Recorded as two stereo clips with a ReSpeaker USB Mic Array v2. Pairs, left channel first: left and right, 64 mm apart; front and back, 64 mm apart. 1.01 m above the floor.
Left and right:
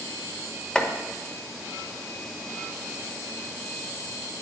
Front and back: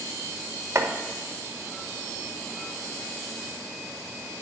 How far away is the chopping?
About 1.0 m.